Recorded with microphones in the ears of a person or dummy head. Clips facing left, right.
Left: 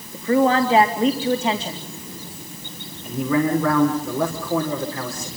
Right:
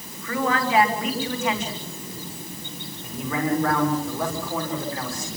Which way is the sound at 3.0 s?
60° left (ahead or behind).